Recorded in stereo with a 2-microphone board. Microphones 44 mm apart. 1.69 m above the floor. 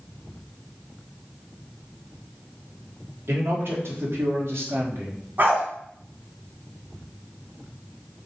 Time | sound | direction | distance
3.3 | a man speaking | 65° right (ahead or behind) | 4 m
5.4 | a dog barking | 45° right (ahead or behind) | 3 m